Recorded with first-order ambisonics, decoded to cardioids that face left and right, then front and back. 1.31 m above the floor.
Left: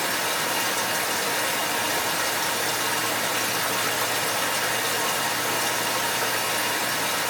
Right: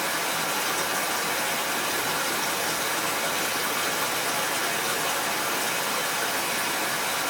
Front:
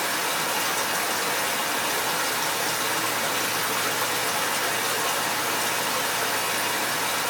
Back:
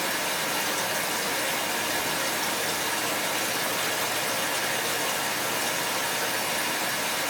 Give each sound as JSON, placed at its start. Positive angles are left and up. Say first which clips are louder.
{"t": 0.0, "sound": "running water", "louder": "left 2 dB, front 2 dB", "azimuth_deg": 25, "distance_m": 1.7}